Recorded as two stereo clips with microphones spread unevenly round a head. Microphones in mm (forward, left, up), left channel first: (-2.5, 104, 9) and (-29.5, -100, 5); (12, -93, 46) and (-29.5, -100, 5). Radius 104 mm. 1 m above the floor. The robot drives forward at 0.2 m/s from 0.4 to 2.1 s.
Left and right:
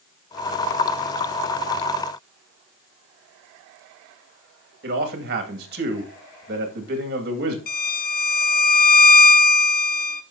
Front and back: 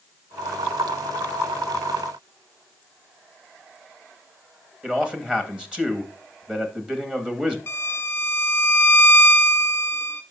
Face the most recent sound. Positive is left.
turn(degrees=30)